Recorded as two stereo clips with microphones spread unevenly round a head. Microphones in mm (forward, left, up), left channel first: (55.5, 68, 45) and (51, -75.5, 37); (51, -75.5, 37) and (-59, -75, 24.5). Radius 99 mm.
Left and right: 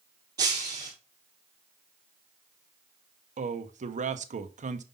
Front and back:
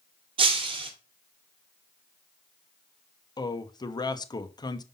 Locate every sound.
0.4 s breaking glass: 160° right, 1.9 m
3.4 s a man speaking: 55° right, 0.9 m